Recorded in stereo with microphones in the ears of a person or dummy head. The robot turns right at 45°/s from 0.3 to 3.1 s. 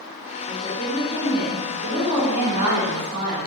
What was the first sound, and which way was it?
A woman speaking, 140° left.